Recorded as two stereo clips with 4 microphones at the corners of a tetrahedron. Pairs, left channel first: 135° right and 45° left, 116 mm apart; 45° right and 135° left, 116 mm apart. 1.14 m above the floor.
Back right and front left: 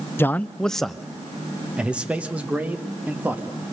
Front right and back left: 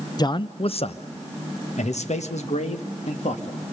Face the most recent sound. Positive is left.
turn(degrees=-30)